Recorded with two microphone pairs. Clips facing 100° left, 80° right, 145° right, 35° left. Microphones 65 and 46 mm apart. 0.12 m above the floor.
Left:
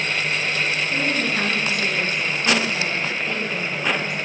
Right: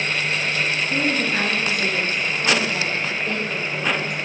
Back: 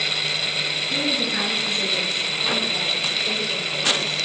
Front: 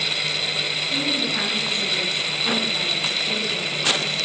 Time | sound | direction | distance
0.8 | a woman speaking | 110° right | 2.0 m